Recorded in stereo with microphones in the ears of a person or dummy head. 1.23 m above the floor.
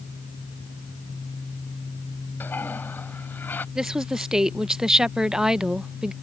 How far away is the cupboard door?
I don't hear a cupboard door.